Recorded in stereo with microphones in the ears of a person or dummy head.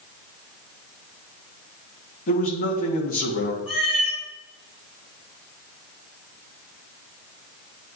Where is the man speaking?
50° left (ahead or behind), 2.0 m.